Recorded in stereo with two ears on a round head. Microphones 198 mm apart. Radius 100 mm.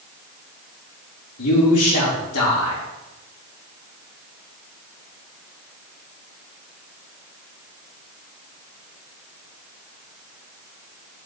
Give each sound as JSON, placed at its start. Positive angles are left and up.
{"t": 1.4, "sound": "a man speaking", "side_deg": 70, "distance_m": 3.5}